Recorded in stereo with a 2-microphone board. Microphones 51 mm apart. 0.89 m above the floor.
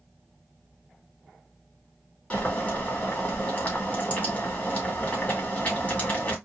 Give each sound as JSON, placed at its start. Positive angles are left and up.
{"t": 2.3, "sound": "boiling", "side_deg": 30, "distance_m": 2.0}